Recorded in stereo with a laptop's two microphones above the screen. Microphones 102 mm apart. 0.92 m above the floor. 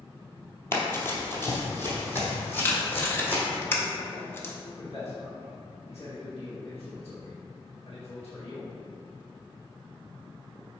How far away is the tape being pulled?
About 1.2 m.